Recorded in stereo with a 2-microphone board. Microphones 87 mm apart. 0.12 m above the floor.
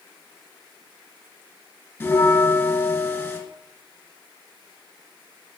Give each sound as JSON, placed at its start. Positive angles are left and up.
{"t": 2.0, "sound": "a bell", "side_deg": 20, "distance_m": 1.5}